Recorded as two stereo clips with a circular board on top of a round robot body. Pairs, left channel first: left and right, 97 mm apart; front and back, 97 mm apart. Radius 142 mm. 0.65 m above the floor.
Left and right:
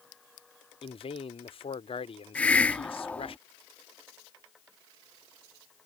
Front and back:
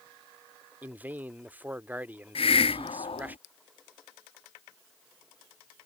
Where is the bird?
I don't hear a bird.